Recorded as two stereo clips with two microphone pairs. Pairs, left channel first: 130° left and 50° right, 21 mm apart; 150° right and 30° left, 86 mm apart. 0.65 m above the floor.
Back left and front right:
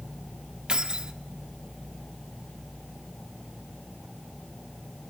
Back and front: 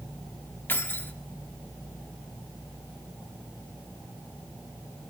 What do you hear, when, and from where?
0.7 s keys jangling: 85° right, 0.9 m